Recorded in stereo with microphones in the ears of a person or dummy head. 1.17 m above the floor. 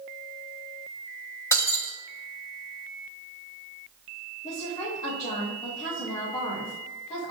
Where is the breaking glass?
15° left (ahead or behind), 0.8 m.